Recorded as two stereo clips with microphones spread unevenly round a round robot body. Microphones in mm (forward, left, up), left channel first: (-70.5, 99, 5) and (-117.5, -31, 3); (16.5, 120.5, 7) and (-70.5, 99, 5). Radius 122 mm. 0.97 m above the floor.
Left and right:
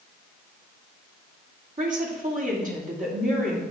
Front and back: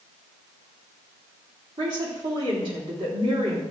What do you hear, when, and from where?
1.8 s a woman speaking: 130° right, 2.5 m